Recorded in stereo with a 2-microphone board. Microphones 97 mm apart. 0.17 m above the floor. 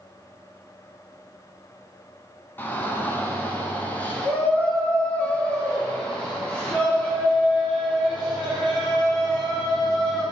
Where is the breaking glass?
I don't hear breaking glass.